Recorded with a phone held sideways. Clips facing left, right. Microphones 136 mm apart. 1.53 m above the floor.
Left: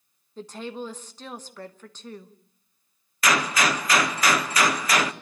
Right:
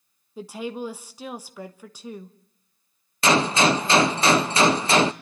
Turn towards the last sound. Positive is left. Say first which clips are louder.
# right 4 dB
turn(degrees=-30)  # may be behind; listen again after turning